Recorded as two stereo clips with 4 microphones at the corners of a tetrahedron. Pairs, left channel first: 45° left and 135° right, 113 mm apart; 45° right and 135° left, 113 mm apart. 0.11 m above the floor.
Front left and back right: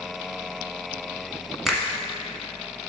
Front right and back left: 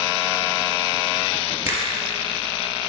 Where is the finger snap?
130° left, 1.3 m.